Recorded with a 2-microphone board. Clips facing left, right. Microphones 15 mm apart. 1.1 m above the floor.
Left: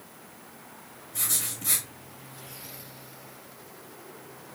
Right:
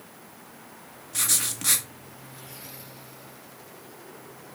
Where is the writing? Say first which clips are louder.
Right 5 dB; 55° right (ahead or behind), 1.4 m.